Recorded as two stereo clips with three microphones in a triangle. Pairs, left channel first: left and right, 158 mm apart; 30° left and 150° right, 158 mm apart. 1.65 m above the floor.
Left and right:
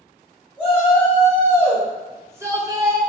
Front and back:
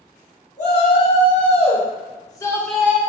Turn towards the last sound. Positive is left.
turn(degrees=-95)